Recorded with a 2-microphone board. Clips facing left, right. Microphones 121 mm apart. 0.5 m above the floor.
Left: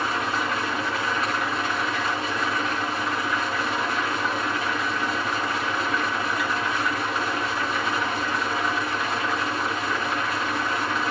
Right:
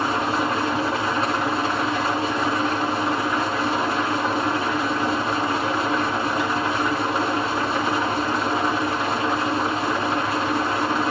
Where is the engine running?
30° right (ahead or behind), 2 m.